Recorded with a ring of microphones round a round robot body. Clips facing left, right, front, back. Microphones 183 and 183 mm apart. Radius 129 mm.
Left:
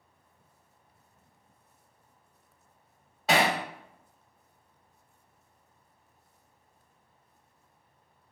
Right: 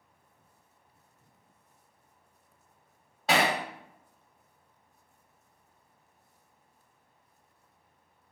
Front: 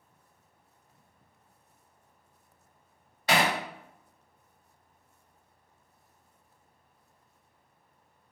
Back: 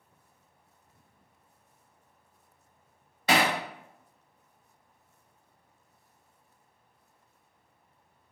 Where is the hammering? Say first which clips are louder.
Left 1 dB, back 1 dB; straight behind, 0.8 m.